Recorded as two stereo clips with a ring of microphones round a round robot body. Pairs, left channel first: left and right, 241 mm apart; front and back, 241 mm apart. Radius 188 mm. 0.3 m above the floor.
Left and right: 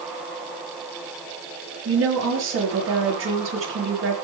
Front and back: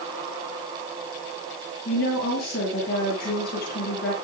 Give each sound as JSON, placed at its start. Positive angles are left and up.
{"t": 1.9, "sound": "a woman speaking", "azimuth_deg": -60, "distance_m": 7.0}